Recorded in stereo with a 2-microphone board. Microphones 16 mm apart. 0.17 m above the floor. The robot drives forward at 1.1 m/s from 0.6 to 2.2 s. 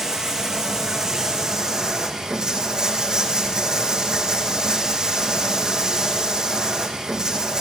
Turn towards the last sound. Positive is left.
turn(degrees=-40)  # may be behind; listen again after turning